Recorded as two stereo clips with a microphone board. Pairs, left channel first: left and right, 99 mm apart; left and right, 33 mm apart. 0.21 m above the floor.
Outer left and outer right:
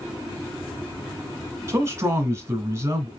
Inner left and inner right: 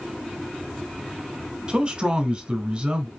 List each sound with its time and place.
1.7 s a man speaking: 30° right (ahead or behind), 1.2 m